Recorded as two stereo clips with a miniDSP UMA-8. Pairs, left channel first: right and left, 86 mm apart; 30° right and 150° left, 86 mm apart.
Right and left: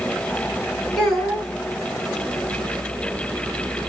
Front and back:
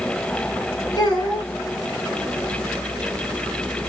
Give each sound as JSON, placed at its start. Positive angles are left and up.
{"t": 1.0, "sound": "a child speaking", "azimuth_deg": 0, "distance_m": 1.4}